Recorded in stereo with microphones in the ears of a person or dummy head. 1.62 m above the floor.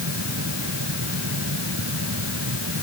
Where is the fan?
85° right.